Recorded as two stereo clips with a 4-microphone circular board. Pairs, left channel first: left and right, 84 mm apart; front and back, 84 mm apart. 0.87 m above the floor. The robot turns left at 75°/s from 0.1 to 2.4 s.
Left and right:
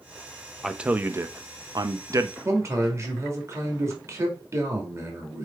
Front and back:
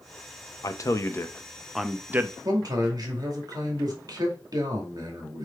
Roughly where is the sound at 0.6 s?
Ahead.